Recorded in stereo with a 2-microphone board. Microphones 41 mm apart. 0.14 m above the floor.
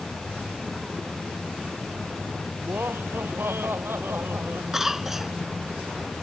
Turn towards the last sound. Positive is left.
turn(degrees=-10)  # may be behind; listen again after turning